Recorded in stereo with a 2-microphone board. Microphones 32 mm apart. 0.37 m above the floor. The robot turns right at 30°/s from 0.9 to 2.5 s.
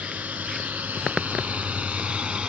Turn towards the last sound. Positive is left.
turn(degrees=-35)  # may be behind; listen again after turning